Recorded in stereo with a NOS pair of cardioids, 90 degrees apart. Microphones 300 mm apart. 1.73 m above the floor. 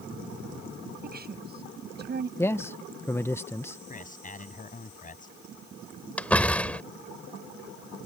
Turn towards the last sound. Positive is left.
turn(degrees=5)